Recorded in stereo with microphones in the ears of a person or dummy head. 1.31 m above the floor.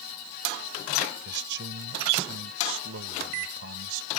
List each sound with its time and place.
1.2 s a man speaking: 60° right (ahead or behind); by 4.1 s 80° right